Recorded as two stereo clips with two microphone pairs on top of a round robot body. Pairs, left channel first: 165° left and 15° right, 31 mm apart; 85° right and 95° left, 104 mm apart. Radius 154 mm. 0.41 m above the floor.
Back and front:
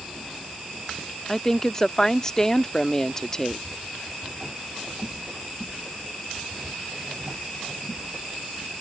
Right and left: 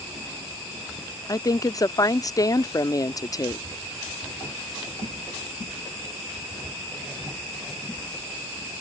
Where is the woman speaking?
125° right.